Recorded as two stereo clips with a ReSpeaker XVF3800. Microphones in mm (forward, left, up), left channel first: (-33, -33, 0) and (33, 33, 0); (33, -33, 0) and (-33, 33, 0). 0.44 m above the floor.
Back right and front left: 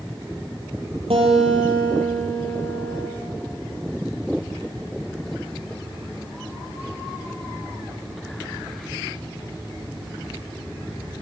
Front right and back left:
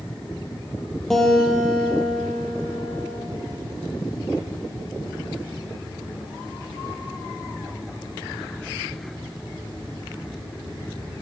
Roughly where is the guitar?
Ahead left.